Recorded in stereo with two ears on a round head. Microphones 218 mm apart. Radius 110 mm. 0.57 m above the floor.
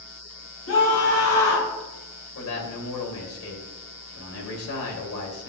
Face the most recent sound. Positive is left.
turn(degrees=60)  # may be behind; listen again after turning